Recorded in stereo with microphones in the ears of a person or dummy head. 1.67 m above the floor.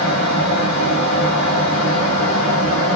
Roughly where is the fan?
Left.